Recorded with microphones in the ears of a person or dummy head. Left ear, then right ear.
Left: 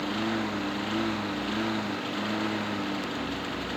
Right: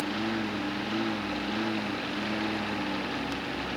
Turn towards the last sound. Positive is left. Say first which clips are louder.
# left 1 dB
turn(degrees=30)  # may be behind; listen again after turning